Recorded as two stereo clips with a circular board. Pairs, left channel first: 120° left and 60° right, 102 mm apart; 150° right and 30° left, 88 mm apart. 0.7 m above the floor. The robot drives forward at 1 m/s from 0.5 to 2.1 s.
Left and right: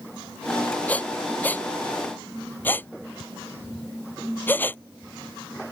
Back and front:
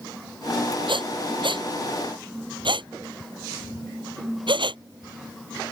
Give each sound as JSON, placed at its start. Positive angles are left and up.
{"t": 0.9, "sound": "breathing", "azimuth_deg": 45}